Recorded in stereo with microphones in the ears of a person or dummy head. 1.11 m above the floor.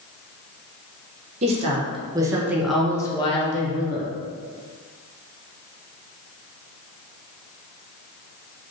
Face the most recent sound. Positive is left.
turn(degrees=50)  # may be behind; listen again after turning